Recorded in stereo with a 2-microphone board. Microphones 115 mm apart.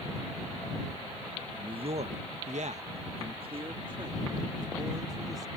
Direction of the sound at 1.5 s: 40° right (ahead or behind).